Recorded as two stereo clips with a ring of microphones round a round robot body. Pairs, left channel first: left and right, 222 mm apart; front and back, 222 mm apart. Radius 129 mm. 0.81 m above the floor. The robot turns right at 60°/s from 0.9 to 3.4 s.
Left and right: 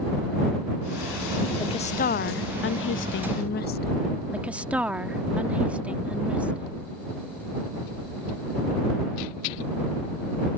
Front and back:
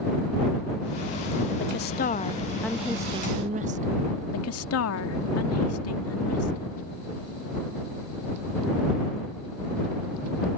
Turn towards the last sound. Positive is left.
turn(degrees=-5)